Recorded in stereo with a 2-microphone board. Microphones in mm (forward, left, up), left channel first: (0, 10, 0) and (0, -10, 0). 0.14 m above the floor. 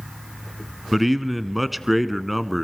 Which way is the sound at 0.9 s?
5° right (ahead or behind).